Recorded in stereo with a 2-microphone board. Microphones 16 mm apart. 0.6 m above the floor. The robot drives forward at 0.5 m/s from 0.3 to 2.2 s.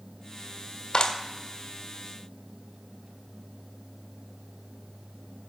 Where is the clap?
75° left (ahead or behind), 1.4 m.